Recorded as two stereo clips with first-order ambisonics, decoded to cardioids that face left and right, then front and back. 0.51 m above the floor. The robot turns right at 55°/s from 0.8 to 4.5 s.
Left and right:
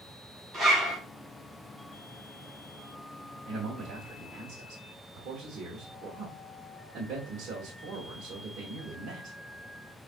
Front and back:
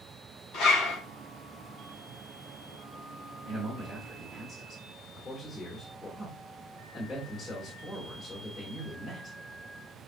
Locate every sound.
0.5 s a zipper: 25° right, 2 m; by 1.0 s 15° right, 2 m
3.5 s a man speaking: 135° right, 1.0 m; by 9.4 s 75° right, 1.0 m